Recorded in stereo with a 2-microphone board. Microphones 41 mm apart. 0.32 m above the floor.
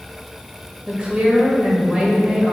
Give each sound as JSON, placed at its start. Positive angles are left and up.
{"t": 0.9, "sound": "a woman speaking", "side_deg": -25, "distance_m": 1.0}